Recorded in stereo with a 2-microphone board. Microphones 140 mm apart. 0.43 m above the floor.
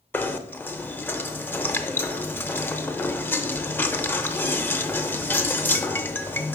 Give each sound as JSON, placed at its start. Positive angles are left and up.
{"t": 0.1, "sound": "knocking", "side_deg": 15, "distance_m": 0.5}